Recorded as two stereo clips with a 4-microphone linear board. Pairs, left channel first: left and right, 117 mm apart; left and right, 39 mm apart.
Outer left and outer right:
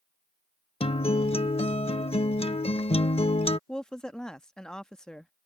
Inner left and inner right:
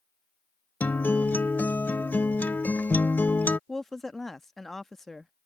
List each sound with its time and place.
0.8 s a guitar: 50° left (ahead or behind)
3.7 s a woman speaking: 5° left (ahead or behind)